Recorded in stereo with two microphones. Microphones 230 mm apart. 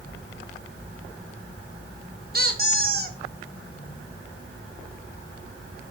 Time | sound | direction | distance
2.3 | a squeak | 40° right (ahead or behind) | 1.9 m